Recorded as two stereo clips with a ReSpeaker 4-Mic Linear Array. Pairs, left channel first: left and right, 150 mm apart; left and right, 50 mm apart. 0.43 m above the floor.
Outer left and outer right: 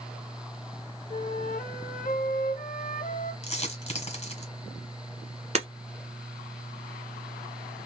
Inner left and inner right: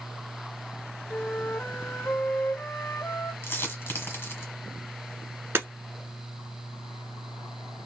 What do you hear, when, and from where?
1.1 s a flute: 60° left (ahead or behind), 0.6 m
3.4 s a dropped coin: 40° left (ahead or behind), 1.3 m
5.5 s breaking glass: 45° right (ahead or behind), 1.3 m